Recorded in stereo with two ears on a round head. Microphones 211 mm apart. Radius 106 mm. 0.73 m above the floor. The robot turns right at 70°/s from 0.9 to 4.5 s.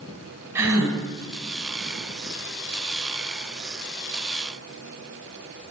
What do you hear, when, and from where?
0.6 s a gasp: 10° right (ahead or behind), 4 m; by 1.0 s 5° right (ahead or behind), 4 m